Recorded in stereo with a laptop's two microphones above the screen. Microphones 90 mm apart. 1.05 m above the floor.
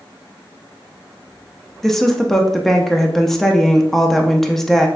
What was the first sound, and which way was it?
A woman speaking, 5° left (ahead or behind).